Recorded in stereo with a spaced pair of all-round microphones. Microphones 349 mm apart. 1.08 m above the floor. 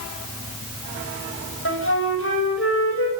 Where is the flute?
40° left (ahead or behind), 6 m.